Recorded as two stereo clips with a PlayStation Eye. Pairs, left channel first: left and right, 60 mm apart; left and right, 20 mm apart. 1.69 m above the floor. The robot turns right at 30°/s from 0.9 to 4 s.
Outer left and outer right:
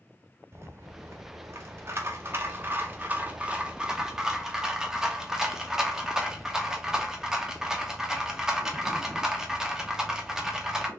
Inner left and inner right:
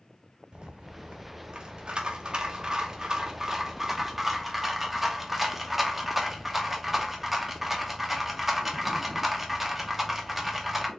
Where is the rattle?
105° right, 1.0 m; by 10.9 s 10° right, 1.0 m.